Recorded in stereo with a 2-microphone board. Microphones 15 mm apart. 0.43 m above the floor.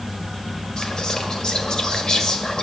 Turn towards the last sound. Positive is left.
turn(degrees=45)  # may be behind; listen again after turning